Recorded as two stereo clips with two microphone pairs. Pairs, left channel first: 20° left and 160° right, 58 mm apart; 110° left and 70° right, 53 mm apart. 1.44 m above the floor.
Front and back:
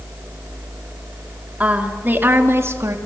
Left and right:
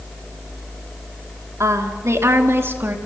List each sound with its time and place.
1.6 s a woman speaking: 95° right, 4 m; by 3.0 s 125° right, 3.5 m